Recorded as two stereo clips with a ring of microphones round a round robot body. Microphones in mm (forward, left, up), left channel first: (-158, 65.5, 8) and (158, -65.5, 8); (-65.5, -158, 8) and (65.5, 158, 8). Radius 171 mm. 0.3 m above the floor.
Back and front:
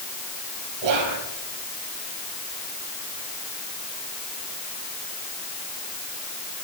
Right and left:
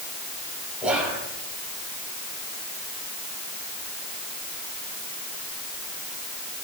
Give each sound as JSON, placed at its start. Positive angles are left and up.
{"t": 0.8, "sound": "whispering", "azimuth_deg": -20, "distance_m": 9.5}